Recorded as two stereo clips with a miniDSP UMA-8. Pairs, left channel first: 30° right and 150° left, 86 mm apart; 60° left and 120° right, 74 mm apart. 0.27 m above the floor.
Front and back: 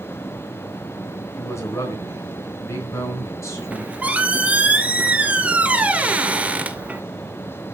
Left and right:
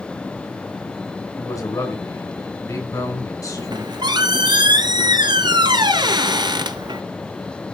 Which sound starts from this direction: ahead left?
A man speaking, at 1.4 s.